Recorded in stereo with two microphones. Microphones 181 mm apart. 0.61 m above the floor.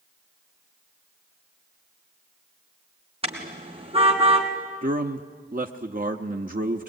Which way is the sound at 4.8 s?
50° right (ahead or behind).